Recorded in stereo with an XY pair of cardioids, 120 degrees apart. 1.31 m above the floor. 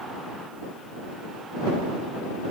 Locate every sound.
Only background noise.